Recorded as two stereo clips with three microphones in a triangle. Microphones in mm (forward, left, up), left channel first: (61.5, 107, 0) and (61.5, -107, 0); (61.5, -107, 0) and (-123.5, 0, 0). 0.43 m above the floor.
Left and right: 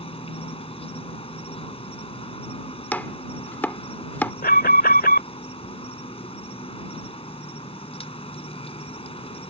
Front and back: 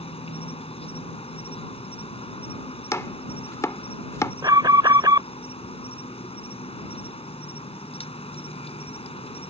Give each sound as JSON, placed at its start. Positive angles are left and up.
{"t": 0.0, "sound": "an insect", "azimuth_deg": 30}
{"t": 2.9, "sound": "chopping", "azimuth_deg": 20}
{"t": 4.4, "sound": "an alarm", "azimuth_deg": 85}